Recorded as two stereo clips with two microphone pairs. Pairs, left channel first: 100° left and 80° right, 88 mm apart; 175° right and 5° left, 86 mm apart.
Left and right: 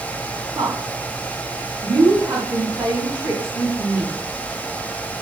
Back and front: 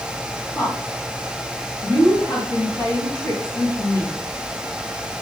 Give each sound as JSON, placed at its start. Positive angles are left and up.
{"t": 0.6, "sound": "a woman speaking", "azimuth_deg": -110, "distance_m": 3.0}